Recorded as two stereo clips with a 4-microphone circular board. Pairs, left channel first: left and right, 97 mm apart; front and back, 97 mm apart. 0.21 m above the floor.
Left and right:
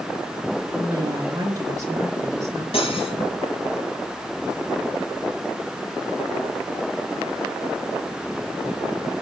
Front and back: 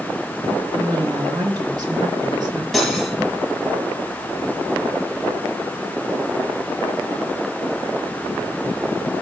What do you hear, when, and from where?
0.7 s a woman speaking: 140° right, 4 m
2.7 s cutlery clinking: 90° left, 2.5 m